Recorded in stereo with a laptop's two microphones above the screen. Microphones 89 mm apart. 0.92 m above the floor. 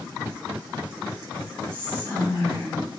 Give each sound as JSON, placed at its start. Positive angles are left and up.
{"t": 1.7, "sound": "whispering", "side_deg": -75, "distance_m": 1.7}